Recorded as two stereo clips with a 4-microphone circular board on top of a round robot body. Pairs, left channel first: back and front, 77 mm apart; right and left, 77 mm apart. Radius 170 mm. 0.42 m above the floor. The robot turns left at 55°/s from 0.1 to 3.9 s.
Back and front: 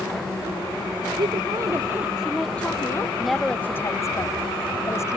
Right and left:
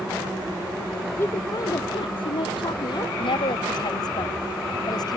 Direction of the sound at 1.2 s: 25° right.